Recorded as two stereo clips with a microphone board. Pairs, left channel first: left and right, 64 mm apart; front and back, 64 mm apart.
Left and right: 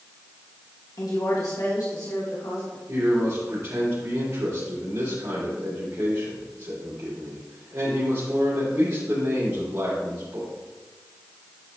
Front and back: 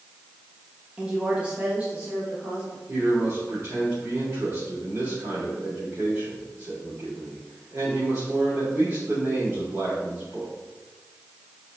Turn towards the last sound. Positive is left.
turn(degrees=-130)